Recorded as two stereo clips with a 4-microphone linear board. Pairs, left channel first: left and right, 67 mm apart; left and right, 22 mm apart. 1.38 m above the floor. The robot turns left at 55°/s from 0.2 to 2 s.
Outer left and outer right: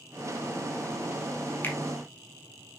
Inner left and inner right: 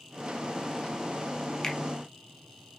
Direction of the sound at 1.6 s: 30° left (ahead or behind).